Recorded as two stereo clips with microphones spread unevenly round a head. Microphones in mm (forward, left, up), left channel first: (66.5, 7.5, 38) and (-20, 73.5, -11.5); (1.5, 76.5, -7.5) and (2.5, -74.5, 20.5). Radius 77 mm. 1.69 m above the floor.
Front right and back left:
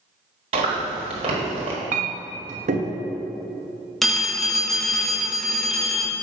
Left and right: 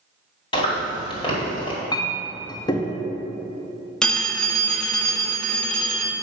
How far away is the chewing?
About 1.5 m.